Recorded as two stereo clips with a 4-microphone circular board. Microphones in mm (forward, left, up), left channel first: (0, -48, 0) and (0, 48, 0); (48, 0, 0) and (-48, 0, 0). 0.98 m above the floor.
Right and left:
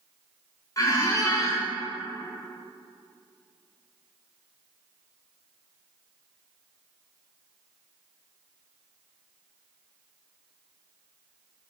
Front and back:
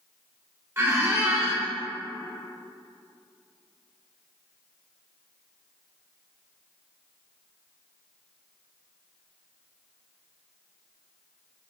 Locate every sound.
0.8 s a squeak: 125° right, 0.6 m